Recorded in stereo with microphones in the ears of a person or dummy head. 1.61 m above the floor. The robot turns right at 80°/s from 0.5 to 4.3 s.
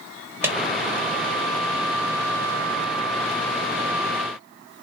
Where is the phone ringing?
No phone ringing in this recording.